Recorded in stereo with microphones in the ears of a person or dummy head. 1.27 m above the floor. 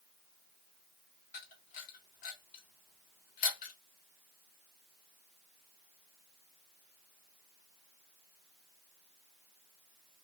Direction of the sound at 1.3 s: 45° left (ahead or behind).